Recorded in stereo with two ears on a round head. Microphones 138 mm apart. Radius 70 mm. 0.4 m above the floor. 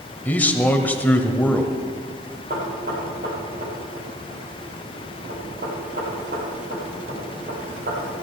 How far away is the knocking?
About 7 m.